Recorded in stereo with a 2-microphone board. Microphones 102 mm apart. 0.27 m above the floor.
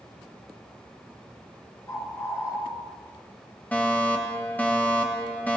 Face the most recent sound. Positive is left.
turn(degrees=15)  # may be behind; listen again after turning